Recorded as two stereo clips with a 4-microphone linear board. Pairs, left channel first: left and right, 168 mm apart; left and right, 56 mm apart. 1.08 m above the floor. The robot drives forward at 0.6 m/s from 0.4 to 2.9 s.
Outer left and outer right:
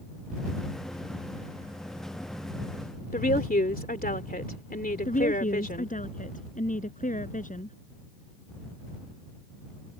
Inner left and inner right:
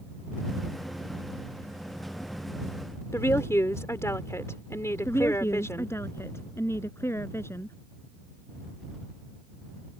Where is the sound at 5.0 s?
50° left (ahead or behind).